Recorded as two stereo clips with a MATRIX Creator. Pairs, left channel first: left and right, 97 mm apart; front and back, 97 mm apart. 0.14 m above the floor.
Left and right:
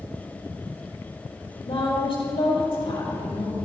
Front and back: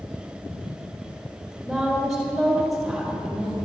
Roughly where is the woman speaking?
Left.